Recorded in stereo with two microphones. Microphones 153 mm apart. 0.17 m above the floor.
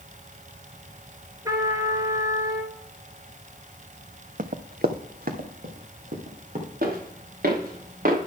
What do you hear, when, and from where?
1.4 s a trumpet: 20° right (ahead or behind), 1.5 m
4.4 s running footsteps: 65° right (ahead or behind), 0.7 m; by 6.7 s 60° right (ahead or behind), 3.5 m
6.8 s footsteps: 85° right, 4 m; by 8.2 s 65° right (ahead or behind), 3 m